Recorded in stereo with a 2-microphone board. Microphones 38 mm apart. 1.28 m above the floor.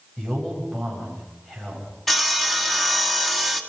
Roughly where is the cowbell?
I don't hear a cowbell.